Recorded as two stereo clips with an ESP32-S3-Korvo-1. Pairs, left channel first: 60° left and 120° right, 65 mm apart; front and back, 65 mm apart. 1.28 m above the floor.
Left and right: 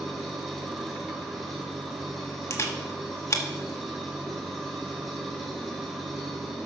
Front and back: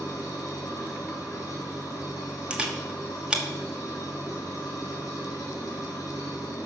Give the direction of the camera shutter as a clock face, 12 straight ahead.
8 o'clock.